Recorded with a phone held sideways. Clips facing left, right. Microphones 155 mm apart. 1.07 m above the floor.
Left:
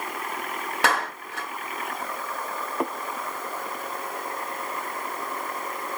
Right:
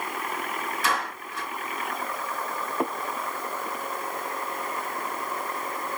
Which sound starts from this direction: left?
A clap, at 0.8 s.